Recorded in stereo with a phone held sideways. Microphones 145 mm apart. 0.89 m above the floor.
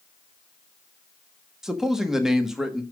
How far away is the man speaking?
About 1.2 m.